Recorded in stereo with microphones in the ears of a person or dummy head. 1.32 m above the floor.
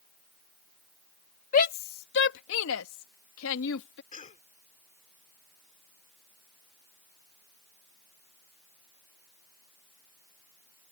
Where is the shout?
45° left (ahead or behind); by 4.0 s 65° left (ahead or behind).